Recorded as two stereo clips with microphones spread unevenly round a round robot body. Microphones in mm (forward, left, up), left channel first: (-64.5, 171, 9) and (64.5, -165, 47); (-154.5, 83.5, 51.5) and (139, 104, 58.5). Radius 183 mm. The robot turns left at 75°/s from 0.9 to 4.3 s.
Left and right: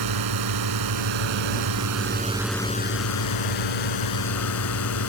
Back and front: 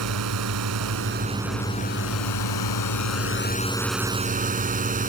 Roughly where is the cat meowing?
I don't hear a cat meowing.